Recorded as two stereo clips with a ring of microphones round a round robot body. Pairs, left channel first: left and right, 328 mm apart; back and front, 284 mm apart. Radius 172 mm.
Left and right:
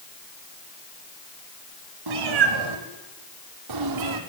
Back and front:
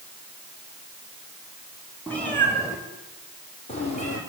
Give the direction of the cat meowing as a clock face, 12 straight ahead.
3 o'clock.